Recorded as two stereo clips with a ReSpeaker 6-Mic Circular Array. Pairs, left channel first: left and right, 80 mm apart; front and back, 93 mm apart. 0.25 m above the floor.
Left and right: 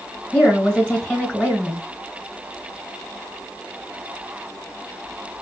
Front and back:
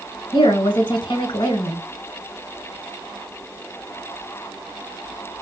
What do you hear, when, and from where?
0.3 s a woman speaking: 20° left, 1.9 m